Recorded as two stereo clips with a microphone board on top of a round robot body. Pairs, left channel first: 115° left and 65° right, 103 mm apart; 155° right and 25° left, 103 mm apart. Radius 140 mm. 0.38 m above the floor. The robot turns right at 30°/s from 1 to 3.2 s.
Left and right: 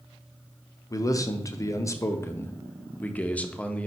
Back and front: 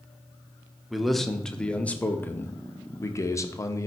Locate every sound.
0.9 s a man speaking: 110° left, 0.9 m; by 3.9 s straight behind, 0.9 m